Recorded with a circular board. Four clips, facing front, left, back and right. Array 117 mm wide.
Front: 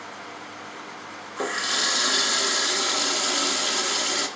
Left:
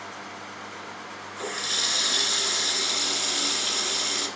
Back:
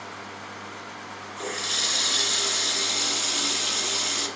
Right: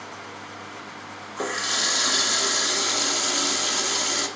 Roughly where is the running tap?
Ahead right.